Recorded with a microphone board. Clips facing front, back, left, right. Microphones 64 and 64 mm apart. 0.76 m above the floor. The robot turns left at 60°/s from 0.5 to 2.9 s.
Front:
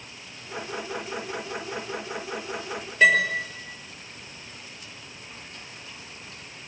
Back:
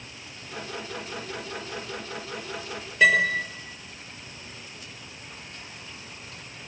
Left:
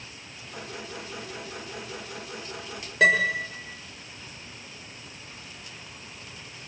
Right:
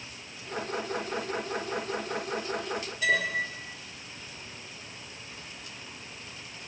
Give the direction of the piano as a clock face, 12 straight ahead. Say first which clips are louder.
Even, left 7 dB; 9 o'clock.